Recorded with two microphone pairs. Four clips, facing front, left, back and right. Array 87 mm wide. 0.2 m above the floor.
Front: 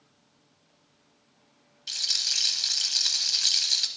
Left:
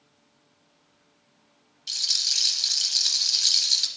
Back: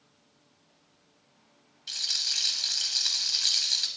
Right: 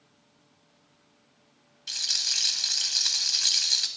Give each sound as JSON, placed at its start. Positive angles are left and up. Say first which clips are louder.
{"t": 1.9, "sound": "a rattle", "louder": "even, front 2 dB", "azimuth_deg": -90, "distance_m": 0.8}